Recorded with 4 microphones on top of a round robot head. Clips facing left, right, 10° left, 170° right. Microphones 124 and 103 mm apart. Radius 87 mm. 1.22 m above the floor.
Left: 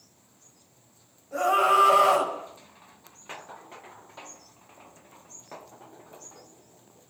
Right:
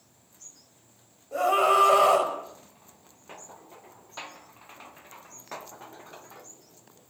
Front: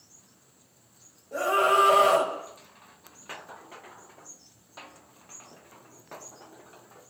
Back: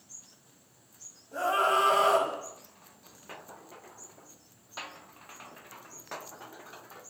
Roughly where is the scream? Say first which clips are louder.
Even, front 4 dB; ahead.